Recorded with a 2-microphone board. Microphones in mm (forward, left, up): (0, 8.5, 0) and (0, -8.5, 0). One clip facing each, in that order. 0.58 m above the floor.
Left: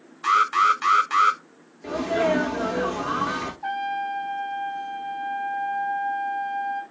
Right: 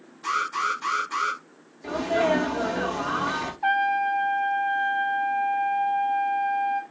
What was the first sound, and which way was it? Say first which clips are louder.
An alarm: left 7 dB; 70° left (ahead or behind).